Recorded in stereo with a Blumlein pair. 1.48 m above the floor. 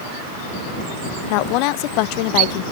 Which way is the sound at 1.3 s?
45° left.